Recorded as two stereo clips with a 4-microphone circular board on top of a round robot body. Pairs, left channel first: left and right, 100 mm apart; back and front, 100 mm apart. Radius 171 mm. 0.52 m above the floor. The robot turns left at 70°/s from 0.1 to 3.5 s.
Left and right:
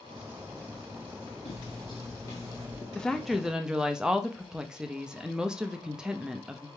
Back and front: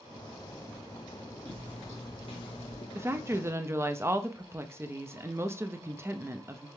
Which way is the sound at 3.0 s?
20° left.